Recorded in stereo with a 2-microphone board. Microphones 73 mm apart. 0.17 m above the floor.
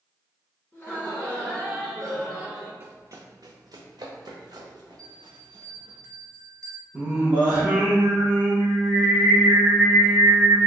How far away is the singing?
About 1.9 m.